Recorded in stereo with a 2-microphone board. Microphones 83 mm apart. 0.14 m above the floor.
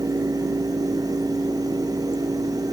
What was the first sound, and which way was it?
Only background noise.